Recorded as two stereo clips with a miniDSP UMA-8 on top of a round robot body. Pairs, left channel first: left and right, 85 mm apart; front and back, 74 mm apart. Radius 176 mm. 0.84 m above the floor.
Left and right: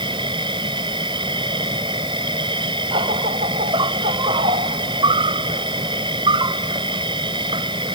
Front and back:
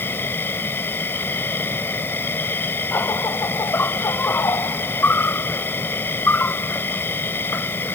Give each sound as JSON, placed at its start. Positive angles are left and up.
{"t": 0.0, "sound": "an insect", "azimuth_deg": -60}